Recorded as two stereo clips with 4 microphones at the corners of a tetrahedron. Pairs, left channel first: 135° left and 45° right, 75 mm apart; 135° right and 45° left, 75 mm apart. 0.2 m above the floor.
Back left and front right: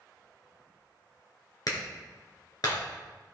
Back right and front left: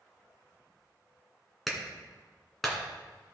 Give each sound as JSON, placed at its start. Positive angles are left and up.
{"t": 1.7, "sound": "a clap", "azimuth_deg": 135, "distance_m": 1.8}